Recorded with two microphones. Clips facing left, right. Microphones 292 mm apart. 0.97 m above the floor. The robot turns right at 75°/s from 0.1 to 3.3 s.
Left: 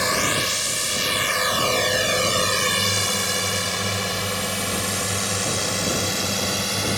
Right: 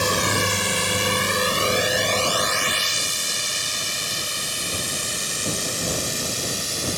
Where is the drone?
40° right (ahead or behind); by 7.0 s 75° left (ahead or behind).